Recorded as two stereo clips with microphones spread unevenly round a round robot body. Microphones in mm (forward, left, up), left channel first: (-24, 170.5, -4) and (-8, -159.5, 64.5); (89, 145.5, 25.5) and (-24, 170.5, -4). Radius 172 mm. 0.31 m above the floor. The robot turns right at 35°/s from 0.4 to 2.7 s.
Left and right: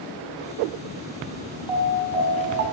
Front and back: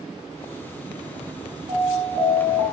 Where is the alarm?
175° right, 5.5 m; by 2.6 s 140° right, 5.5 m.